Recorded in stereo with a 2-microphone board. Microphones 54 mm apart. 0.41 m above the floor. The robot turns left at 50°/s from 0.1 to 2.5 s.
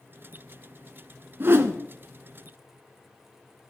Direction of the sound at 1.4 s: 45° right (ahead or behind).